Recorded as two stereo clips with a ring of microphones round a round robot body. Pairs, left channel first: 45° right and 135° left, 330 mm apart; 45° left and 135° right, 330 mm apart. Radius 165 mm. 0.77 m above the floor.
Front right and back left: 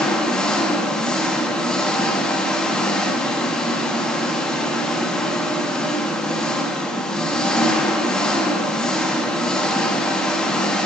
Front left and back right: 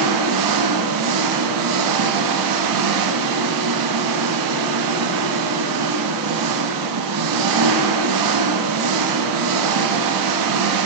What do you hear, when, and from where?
0.0 s an engine running: 135° right, 0.8 m